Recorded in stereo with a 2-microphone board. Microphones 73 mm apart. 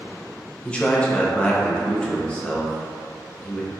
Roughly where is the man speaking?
Centre.